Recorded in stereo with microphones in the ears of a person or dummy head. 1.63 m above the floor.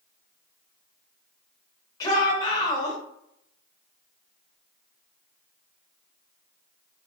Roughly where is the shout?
Left.